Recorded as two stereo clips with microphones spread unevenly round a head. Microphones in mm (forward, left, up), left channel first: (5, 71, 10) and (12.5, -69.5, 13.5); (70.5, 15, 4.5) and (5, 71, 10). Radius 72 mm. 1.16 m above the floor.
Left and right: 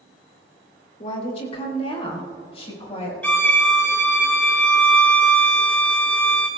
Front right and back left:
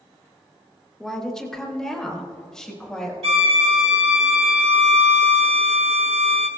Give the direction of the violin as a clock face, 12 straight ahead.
6 o'clock.